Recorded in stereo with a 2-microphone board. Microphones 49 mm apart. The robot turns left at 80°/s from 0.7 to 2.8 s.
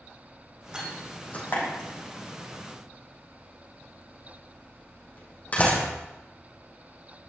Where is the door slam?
15° right (ahead or behind), 6 m; by 5.9 s 30° left (ahead or behind), 6 m.